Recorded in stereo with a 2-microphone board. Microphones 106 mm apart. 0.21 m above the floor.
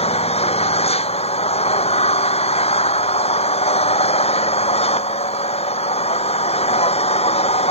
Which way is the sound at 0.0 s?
75° left (ahead or behind).